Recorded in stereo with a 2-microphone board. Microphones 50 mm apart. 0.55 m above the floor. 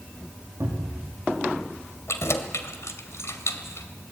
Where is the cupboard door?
50° right (ahead or behind), 7 m.